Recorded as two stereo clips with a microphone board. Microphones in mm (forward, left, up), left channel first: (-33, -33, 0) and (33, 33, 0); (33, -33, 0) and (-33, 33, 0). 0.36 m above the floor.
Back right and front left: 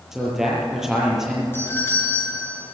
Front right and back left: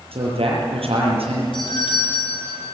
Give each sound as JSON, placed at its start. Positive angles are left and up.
{"t": 0.1, "sound": "a man speaking", "azimuth_deg": 130, "distance_m": 7.5}
{"t": 1.5, "sound": "a doorbell", "azimuth_deg": -70, "distance_m": 6.5}